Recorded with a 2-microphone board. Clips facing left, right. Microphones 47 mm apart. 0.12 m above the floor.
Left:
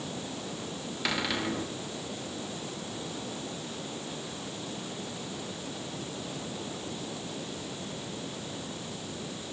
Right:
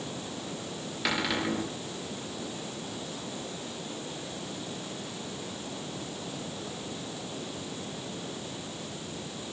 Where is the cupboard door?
Centre (ahead or behind), 7 m.